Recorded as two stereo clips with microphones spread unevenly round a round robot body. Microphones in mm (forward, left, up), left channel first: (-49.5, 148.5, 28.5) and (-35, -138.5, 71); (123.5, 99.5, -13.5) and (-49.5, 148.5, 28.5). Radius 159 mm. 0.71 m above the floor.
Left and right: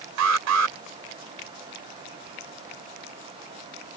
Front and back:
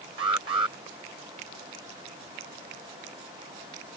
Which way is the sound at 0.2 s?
120° right.